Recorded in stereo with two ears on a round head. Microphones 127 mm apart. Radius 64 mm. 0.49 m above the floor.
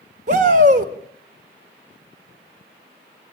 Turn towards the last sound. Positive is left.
turn(degrees=-60)  # may be behind; listen again after turning